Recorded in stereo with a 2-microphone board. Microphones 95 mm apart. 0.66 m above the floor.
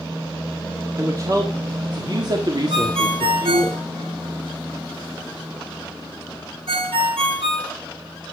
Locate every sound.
1.0 s a man speaking: 35° right (ahead or behind), 1.7 m; by 3.7 s 50° right (ahead or behind), 2.0 m
2.7 s a ringtone: 75° right (ahead or behind), 5 m